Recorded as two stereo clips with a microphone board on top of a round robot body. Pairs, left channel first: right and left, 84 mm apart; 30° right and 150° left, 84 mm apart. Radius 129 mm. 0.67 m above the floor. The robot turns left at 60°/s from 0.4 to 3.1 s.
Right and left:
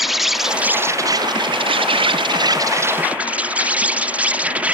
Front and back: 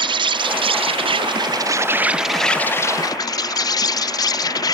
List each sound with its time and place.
0.0 s an insect: 175° left; by 4.8 s 15° left